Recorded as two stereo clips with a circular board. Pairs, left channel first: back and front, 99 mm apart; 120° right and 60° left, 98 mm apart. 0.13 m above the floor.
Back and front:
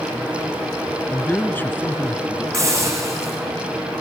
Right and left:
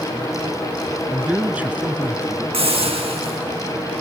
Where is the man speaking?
125° left, 1.6 m.